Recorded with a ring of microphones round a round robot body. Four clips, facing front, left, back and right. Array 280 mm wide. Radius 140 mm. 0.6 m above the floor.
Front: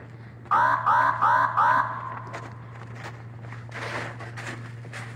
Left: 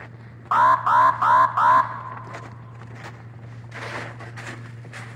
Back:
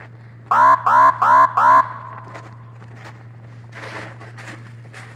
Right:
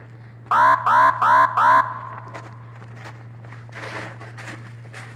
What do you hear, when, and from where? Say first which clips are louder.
0.5 s an alarm: right 2 dB, back 8 dB; 165° right, 0.7 m